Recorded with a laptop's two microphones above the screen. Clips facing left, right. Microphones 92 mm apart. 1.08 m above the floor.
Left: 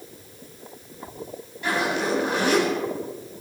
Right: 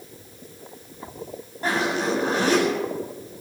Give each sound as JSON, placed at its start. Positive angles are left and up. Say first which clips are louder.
{"t": 1.6, "sound": "a zipper", "louder": "right 1 dB", "side_deg": -40, "distance_m": 9.5}